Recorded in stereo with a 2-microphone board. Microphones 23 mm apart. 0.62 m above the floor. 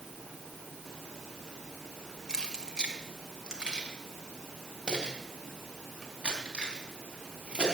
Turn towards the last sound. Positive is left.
turn(degrees=-35)  # may be behind; listen again after turning